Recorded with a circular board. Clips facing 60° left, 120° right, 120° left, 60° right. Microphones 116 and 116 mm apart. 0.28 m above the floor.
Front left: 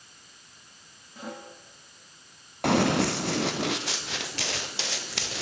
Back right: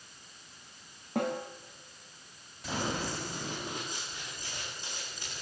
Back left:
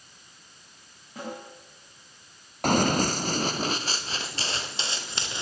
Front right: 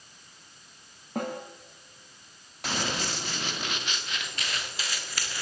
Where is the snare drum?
95° right, 8 m.